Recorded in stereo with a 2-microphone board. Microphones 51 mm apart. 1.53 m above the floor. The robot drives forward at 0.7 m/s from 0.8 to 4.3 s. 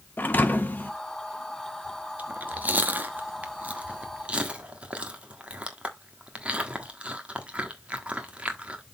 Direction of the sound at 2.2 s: 30° right (ahead or behind).